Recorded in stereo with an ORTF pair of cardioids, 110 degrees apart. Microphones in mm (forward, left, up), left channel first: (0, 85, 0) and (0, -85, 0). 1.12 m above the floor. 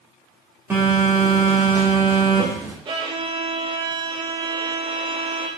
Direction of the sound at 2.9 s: 30° right.